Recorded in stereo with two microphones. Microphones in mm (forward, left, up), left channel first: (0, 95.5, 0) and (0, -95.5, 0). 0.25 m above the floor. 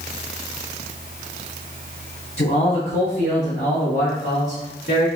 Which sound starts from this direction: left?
A man speaking, at 2.4 s.